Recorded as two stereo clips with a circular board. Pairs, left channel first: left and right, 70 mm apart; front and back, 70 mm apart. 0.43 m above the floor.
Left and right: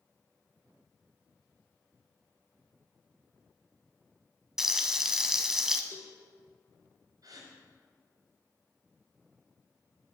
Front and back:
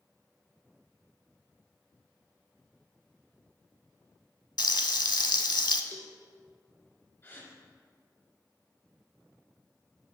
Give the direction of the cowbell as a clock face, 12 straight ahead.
7 o'clock.